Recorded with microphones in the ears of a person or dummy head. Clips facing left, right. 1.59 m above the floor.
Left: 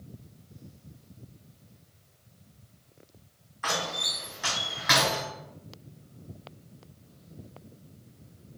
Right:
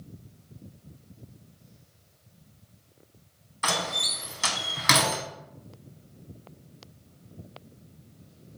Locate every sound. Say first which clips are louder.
3.6 s a door slam: right 2 dB; 45° right (ahead or behind), 0.8 m